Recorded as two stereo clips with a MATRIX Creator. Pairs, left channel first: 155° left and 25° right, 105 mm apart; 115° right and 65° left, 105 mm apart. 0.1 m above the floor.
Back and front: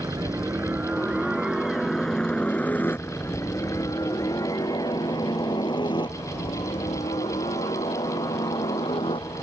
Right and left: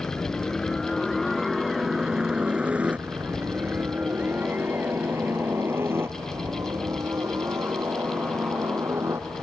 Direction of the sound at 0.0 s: 40° right.